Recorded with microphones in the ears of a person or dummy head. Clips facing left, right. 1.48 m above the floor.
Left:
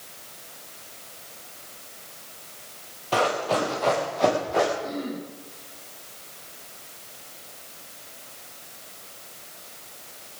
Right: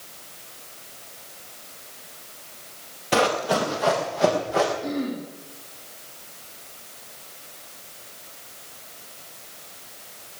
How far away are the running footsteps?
About 2 m.